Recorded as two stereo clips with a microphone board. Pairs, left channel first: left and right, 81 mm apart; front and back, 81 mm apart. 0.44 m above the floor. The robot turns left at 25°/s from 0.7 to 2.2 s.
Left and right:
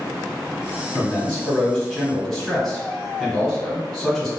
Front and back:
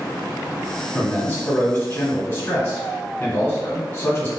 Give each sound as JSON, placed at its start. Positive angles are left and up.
{"t": 0.9, "sound": "a man speaking", "azimuth_deg": 30, "distance_m": 1.2}